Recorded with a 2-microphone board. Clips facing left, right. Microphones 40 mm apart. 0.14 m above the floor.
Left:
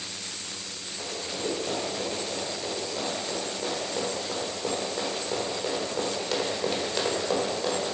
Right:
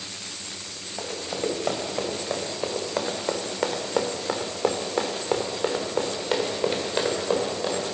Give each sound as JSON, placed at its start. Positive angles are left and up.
{"t": 1.0, "sound": "running footsteps", "side_deg": -65, "distance_m": 2.5}